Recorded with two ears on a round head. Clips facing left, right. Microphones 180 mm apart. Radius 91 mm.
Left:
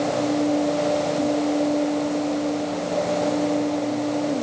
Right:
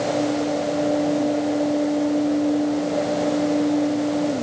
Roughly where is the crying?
I don't hear crying.